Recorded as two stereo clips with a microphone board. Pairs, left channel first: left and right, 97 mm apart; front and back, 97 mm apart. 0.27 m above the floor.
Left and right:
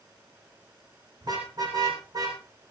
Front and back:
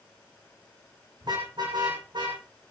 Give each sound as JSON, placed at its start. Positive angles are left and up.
{"t": 1.2, "sound": "a car horn", "azimuth_deg": -135, "distance_m": 6.5}